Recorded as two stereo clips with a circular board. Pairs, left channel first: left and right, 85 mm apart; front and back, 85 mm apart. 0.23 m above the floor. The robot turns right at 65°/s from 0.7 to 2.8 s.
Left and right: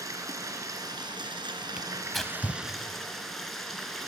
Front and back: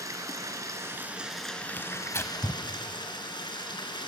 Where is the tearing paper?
25° right, 1.1 m; by 2.6 s 30° left, 1.1 m.